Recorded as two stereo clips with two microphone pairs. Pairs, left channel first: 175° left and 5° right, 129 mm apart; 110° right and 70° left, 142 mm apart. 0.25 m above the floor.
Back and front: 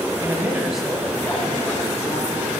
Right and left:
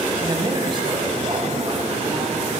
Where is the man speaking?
35° left, 1.2 m; by 2.6 s 120° left, 3 m.